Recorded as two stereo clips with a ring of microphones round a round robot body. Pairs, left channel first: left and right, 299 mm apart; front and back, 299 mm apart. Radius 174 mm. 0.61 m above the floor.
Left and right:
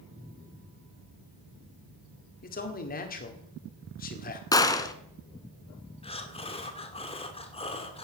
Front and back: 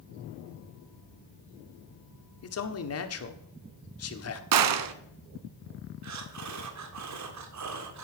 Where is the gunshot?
170° left, 1.1 m.